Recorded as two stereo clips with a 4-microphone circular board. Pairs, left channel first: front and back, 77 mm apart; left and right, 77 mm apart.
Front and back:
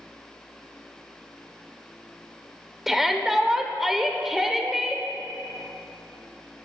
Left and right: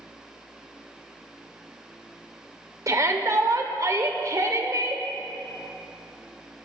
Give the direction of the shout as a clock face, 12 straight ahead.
3 o'clock.